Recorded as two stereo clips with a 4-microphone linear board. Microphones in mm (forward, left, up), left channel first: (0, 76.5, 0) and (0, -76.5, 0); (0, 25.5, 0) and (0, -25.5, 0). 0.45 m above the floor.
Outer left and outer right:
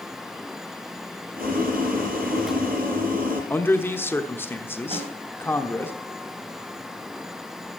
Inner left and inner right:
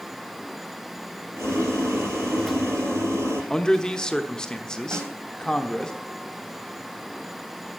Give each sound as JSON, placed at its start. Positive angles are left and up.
{"t": 1.4, "sound": "boiling", "side_deg": -70, "distance_m": 6.0}
{"t": 3.5, "sound": "a man speaking", "side_deg": 15, "distance_m": 1.0}
{"t": 4.9, "sound": "a snare drum", "side_deg": -40, "distance_m": 3.5}